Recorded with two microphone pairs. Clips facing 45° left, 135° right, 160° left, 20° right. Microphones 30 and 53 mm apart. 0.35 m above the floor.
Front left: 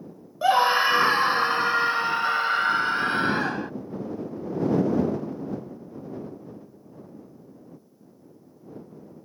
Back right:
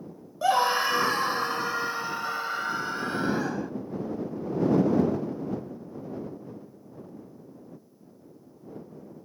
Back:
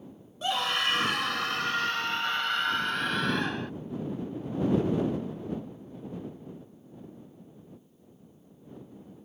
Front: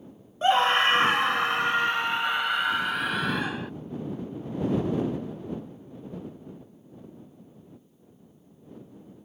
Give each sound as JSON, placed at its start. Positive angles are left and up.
{"t": 0.4, "sound": "a scream", "azimuth_deg": -5}